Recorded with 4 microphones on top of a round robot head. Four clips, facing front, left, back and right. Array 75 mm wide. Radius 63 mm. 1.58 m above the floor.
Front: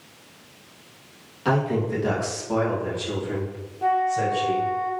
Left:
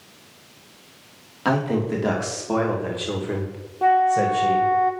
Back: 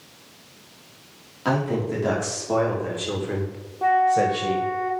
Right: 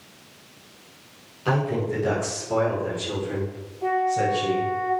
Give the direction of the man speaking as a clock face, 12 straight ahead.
8 o'clock.